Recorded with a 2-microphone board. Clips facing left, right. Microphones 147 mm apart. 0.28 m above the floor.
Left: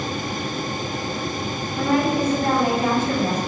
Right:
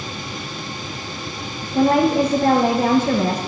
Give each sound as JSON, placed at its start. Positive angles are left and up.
{"t": 1.7, "sound": "a woman speaking", "side_deg": -50, "distance_m": 1.8}